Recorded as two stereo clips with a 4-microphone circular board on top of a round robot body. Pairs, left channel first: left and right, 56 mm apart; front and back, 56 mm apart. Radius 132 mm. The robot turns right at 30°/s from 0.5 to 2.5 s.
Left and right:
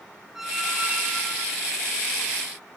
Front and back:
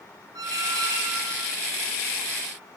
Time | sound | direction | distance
0.3 | a squeak | 175° right | 0.5 m